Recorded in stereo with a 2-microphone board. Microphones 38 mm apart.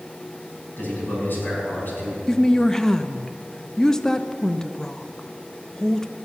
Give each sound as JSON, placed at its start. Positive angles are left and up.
{"t": 0.8, "sound": "a man speaking", "side_deg": 55, "distance_m": 5.5}
{"t": 2.3, "sound": "a woman speaking", "side_deg": 15, "distance_m": 0.5}